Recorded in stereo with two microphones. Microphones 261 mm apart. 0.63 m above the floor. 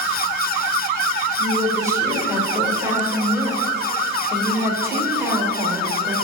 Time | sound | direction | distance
1.4 | a woman speaking | 10° right (ahead or behind) | 2.5 m